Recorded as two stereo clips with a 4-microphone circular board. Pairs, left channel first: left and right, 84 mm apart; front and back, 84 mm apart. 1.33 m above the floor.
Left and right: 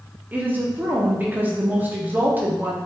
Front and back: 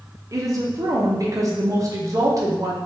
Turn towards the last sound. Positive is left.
turn(degrees=-150)